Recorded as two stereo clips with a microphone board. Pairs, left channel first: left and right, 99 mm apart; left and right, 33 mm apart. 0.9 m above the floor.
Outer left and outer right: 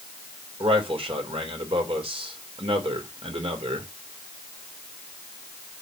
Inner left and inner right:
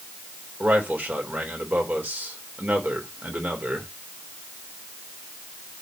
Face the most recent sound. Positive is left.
turn(degrees=-65)  # may be behind; listen again after turning